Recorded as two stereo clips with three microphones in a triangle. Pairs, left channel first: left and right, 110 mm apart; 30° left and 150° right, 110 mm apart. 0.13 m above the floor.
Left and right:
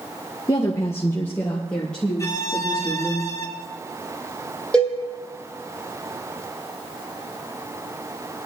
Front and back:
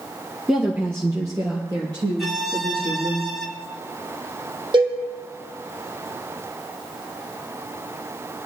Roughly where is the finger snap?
I don't hear a finger snap.